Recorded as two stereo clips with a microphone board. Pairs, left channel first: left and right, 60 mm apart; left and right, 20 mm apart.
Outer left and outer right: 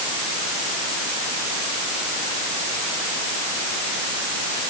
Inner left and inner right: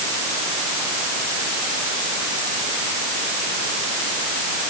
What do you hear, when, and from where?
Only background noise.